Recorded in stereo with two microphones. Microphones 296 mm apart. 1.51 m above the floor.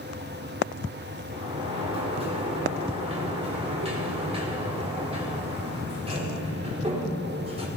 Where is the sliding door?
20° right (ahead or behind), 4.5 m.